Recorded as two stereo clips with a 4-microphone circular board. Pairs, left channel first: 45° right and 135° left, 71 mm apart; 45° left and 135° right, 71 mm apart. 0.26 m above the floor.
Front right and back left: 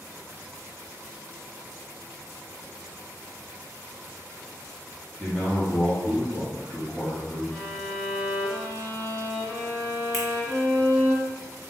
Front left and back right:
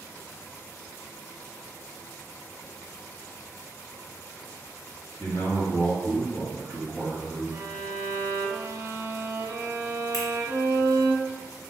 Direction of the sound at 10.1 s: 40° left.